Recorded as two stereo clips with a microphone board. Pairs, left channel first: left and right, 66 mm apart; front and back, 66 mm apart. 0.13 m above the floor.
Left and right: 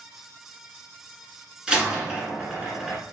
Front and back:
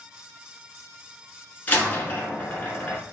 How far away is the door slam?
About 1.0 m.